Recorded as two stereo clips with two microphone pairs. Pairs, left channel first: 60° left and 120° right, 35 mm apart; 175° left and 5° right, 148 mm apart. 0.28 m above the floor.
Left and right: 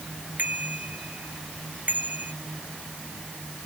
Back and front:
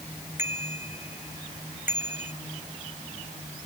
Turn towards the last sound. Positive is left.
turn(degrees=-80)